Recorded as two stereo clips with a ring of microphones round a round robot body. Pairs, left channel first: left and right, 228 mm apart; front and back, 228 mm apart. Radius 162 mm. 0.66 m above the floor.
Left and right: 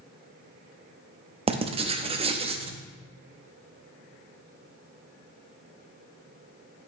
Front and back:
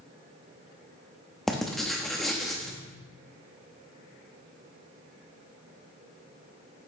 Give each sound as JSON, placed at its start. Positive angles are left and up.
{"t": 1.5, "sound": "writing", "azimuth_deg": -85, "distance_m": 0.5}